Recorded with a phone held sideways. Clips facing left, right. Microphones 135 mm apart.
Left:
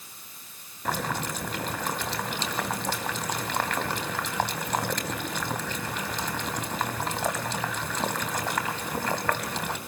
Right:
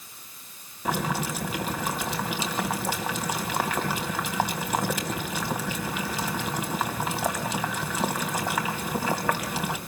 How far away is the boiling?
About 3 m.